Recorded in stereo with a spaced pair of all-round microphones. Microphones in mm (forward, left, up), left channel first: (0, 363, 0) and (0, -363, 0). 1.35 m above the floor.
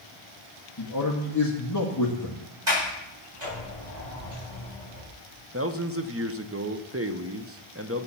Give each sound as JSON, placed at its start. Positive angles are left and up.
{"t": 0.8, "sound": "a man speaking", "side_deg": 25, "distance_m": 1.9}
{"t": 2.7, "sound": "a sliding door", "side_deg": -80, "distance_m": 8.5}
{"t": 5.5, "sound": "a man speaking", "side_deg": -20, "distance_m": 1.0}